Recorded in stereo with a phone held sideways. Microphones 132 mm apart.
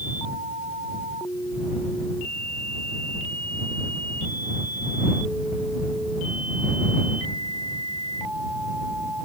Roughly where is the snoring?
I don't hear snoring.